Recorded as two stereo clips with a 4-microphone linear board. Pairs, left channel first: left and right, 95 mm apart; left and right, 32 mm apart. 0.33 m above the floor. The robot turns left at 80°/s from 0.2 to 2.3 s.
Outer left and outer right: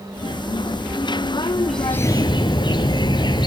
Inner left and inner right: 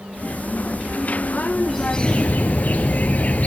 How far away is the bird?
About 1.2 m.